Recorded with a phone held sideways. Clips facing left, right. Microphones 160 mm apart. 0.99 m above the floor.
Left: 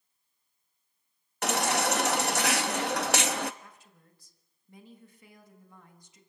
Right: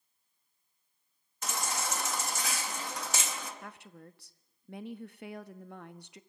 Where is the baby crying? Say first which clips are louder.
Left 9 dB; 75° left (ahead or behind), 0.8 m.